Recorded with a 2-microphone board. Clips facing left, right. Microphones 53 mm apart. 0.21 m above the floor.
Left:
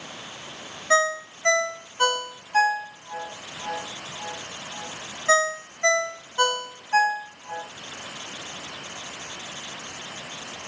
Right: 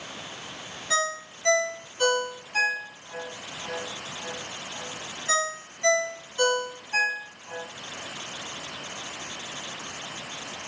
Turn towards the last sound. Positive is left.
turn(degrees=40)  # may be behind; listen again after turning